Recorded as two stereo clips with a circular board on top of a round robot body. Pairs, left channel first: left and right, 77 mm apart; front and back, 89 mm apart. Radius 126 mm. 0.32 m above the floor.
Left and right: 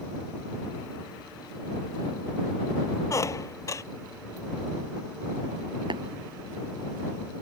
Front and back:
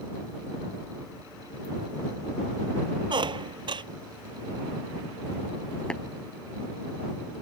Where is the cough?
I don't hear a cough.